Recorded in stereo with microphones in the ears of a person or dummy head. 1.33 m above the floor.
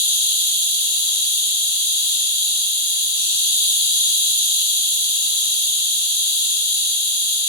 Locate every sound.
0.0 s an insect: 20° left (ahead or behind), 1.4 m